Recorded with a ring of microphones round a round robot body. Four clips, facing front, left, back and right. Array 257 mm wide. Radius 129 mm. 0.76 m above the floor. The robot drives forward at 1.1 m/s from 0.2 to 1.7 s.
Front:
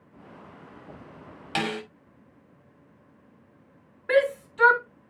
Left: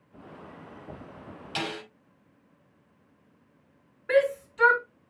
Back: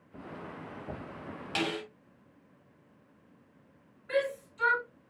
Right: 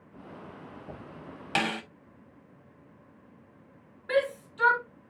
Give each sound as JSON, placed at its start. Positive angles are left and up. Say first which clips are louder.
{"t": 1.6, "sound": "a snare drum", "louder": "right 4 dB, front 4 dB", "azimuth_deg": -65, "distance_m": 2.5}
{"t": 4.1, "sound": "a shout", "louder": "left 4 dB, front 9 dB", "azimuth_deg": 10, "distance_m": 3.0}